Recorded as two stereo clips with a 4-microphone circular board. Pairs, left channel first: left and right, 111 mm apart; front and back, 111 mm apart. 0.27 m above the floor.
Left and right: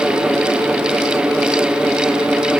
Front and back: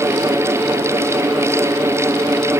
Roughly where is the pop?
No pop in this recording.